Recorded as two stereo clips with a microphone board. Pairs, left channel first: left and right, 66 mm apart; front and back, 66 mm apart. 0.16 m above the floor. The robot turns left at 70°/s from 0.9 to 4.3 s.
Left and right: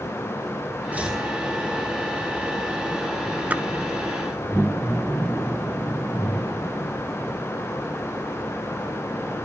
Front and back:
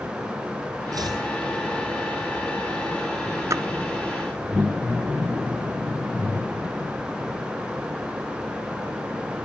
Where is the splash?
150° right, 0.6 m; by 3.6 s 160° right, 0.6 m.